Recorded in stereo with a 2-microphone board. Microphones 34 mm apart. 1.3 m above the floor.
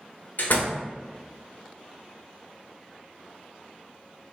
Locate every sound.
0.4 s a door slam: 55° left (ahead or behind), 0.5 m